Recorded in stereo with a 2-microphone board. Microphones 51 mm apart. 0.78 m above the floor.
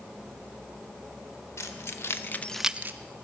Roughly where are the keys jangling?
Left.